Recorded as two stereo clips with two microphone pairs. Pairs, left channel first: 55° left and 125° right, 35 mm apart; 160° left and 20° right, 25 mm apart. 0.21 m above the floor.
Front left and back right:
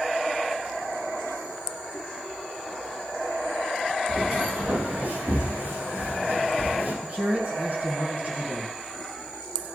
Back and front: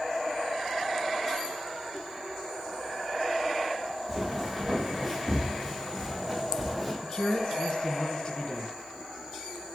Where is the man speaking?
165° right, 2 m.